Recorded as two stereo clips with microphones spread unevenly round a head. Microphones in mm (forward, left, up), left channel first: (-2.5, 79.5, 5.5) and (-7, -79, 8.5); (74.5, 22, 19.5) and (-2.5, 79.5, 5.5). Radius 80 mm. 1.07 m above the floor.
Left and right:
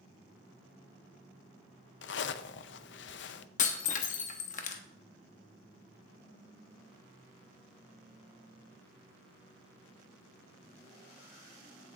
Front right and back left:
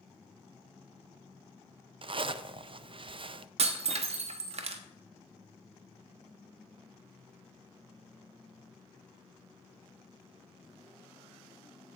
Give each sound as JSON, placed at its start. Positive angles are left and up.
{"t": 2.0, "sound": "a zipper", "azimuth_deg": 105, "distance_m": 0.5}
{"t": 3.6, "sound": "breaking glass", "azimuth_deg": 130, "distance_m": 0.9}